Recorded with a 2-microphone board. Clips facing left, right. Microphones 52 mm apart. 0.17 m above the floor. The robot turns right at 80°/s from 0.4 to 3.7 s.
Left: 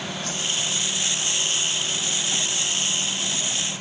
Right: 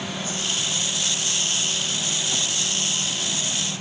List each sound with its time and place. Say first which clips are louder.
0.2 s a whoosh: even; 80° left, 8.5 m; by 0.5 s 70° left (ahead or behind), 8.5 m